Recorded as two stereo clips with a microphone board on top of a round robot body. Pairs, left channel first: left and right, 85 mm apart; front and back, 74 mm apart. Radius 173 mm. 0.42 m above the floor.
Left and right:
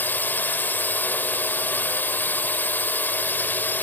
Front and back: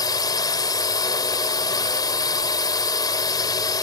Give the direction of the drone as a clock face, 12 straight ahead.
11 o'clock.